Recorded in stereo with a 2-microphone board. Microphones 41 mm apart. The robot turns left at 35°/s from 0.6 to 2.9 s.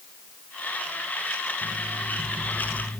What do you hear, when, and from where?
1.6 s an alarm clock: 130° right, 4 m; by 3.0 s 175° right, 4 m